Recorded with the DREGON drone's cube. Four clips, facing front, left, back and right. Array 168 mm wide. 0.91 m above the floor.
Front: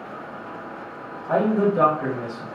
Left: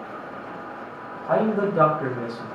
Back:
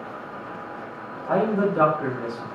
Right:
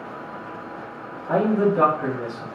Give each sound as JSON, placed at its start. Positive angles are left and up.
{"t": 1.3, "sound": "a man speaking", "azimuth_deg": 100, "distance_m": 1.2}